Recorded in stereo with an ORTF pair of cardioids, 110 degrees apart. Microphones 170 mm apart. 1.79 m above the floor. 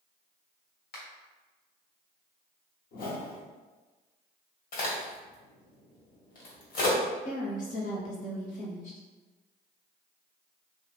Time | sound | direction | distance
0.9 | a finger snap | 65° left | 1.3 m
2.9 | a whoosh | 55° left | 1.0 m
4.7 | a crack | 65° left | 1.5 m
7.2 | a woman speaking | 50° left | 1.2 m